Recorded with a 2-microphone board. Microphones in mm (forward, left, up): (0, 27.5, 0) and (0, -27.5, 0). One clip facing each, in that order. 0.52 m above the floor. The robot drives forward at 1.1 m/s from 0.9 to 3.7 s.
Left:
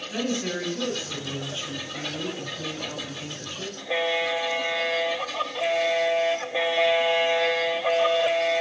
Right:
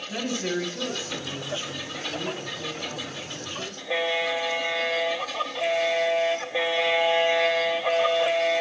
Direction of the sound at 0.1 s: 10° right (ahead or behind).